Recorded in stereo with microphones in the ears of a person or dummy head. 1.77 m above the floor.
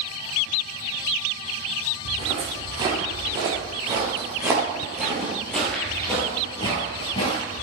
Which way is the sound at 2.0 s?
30° right (ahead or behind).